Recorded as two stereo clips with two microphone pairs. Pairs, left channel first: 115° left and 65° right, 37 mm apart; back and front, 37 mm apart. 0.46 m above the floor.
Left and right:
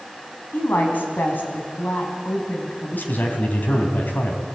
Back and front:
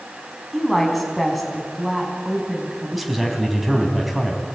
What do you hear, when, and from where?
0.5 s a woman speaking: 95° left, 4.5 m
2.9 s a man speaking: 90° left, 4 m